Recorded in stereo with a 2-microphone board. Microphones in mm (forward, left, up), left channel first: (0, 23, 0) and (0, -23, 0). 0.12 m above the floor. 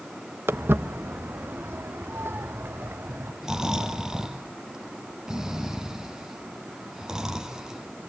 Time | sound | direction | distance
0.5 | footsteps | 60° right (ahead or behind) | 1.4 m
3.4 | snoring | 15° right (ahead or behind) | 2.5 m